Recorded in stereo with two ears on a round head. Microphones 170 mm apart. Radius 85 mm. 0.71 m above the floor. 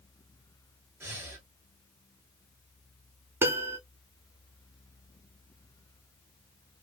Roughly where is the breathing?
Centre.